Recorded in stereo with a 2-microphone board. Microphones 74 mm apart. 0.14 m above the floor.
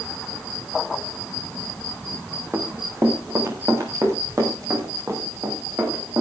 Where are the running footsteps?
35° right (ahead or behind), 4.5 m; by 6.2 s 45° right (ahead or behind), 8 m.